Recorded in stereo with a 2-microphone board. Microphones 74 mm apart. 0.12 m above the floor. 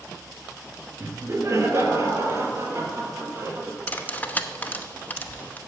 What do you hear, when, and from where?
1.0 s laughter: 45° right (ahead or behind), 1.9 m; by 3.8 s 40° right (ahead or behind), 3 m
3.9 s cutlery clinking: 25° left (ahead or behind), 0.8 m